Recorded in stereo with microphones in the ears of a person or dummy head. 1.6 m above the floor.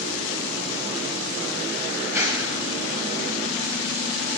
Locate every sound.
2.0 s a clap: 10° right (ahead or behind), 9 m